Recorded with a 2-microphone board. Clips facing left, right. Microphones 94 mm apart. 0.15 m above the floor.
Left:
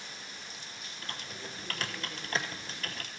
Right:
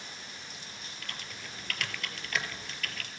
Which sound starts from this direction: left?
Typing on a keyboard, at 1.0 s.